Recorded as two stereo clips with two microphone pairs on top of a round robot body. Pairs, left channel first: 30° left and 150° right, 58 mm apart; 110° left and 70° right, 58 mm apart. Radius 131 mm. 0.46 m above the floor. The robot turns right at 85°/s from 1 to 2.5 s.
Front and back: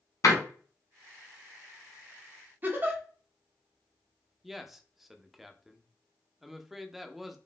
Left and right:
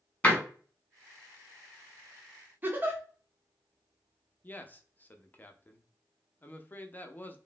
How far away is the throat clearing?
I don't hear throat clearing.